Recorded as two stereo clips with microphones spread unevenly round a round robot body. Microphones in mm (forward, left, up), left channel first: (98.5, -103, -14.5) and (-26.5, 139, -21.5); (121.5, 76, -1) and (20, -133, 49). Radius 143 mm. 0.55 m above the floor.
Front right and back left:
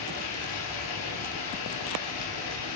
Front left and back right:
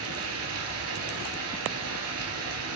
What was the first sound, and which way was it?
Running water, 100° right.